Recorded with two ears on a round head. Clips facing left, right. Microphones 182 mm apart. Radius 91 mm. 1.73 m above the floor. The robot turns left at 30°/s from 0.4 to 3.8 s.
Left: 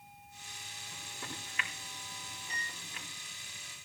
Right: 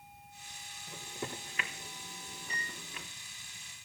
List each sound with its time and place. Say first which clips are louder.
0.9 s a microwave: right 6 dB; 15° right (ahead or behind), 3.5 m; by 3.1 s 75° right (ahead or behind), 3.5 m